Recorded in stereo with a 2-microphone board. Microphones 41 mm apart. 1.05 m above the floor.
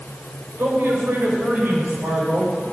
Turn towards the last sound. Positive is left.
turn(degrees=-45)  # may be behind; listen again after turning